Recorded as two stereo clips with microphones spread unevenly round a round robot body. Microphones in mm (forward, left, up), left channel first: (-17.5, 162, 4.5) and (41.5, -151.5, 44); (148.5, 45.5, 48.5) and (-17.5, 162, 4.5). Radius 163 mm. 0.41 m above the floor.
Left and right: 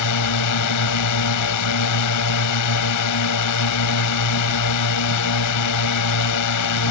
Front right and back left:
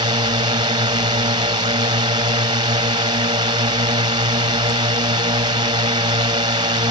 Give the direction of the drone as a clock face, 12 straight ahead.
9 o'clock.